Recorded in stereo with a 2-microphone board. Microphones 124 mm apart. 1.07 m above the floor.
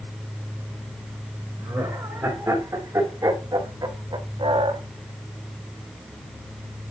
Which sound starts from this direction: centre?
Laughter, at 1.6 s.